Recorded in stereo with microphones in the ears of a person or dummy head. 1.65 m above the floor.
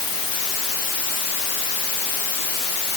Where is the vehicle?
I don't hear a vehicle.